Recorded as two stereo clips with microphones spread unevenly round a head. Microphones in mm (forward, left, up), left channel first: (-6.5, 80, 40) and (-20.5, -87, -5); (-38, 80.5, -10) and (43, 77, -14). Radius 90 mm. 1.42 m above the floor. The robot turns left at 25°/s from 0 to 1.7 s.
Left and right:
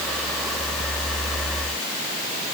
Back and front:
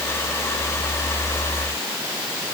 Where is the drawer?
No drawer in this recording.